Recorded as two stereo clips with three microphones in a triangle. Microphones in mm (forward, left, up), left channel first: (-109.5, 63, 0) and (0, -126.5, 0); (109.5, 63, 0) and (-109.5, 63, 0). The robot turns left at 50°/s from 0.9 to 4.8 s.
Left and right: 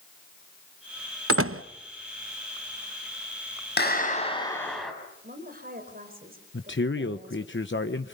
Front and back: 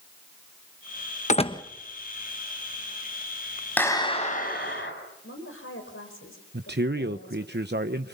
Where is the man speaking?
145° left, 1.0 m.